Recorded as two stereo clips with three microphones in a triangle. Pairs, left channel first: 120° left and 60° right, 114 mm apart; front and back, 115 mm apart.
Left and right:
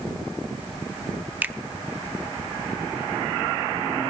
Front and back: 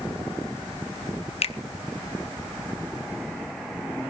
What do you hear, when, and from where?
1.4 s a finger snap: 15° left, 0.8 m